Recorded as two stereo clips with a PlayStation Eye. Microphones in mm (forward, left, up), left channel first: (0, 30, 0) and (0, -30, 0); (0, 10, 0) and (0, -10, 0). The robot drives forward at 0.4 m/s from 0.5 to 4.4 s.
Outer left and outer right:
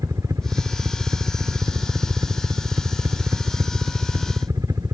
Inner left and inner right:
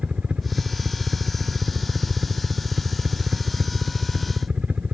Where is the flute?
I don't hear a flute.